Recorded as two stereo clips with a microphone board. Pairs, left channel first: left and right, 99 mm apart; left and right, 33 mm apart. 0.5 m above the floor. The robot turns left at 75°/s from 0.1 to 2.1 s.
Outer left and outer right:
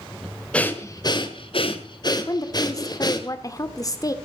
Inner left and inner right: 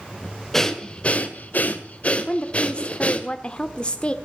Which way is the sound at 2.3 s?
35° left (ahead or behind).